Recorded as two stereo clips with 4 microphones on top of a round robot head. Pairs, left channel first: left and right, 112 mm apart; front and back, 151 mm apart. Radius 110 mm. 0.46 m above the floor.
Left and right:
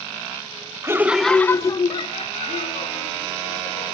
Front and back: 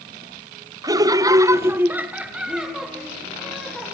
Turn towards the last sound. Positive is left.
turn(degrees=85)